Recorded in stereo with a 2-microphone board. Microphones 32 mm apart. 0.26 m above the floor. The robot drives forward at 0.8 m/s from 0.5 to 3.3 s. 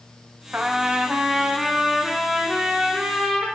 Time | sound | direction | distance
0.5 | a trumpet | 40° right (ahead or behind) | 0.6 m